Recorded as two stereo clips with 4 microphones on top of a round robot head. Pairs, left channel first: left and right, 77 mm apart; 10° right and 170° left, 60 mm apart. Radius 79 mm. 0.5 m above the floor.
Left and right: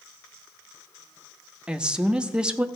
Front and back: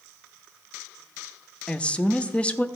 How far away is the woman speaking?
About 0.7 m.